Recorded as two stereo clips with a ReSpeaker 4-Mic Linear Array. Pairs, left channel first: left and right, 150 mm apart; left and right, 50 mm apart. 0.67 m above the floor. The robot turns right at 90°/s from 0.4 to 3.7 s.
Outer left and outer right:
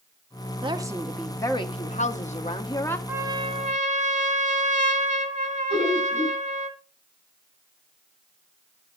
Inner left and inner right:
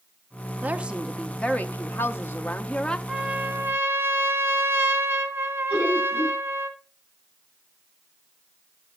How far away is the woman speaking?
About 0.9 m.